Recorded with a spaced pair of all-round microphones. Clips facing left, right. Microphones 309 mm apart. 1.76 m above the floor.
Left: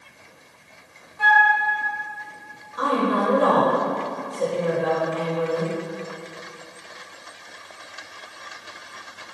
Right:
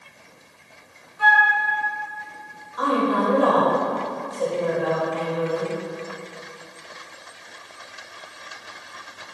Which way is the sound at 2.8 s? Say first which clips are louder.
Right 1 dB; 25° left (ahead or behind).